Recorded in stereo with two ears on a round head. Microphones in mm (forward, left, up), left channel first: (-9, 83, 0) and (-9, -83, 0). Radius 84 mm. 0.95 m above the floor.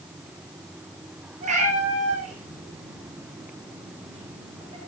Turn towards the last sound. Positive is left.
turn(degrees=-30)  # may be behind; listen again after turning